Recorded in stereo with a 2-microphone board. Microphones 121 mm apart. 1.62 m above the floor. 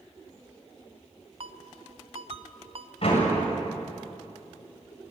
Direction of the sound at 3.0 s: 55° left (ahead or behind).